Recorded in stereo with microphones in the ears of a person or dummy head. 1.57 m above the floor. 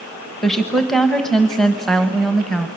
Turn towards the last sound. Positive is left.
turn(degrees=-5)  # may be behind; listen again after turning